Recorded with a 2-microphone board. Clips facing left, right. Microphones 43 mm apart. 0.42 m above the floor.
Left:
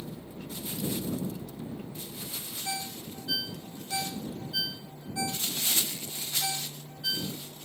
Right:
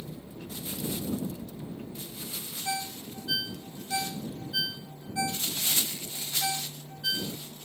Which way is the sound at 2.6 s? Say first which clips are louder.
Right 3 dB; 15° right (ahead or behind).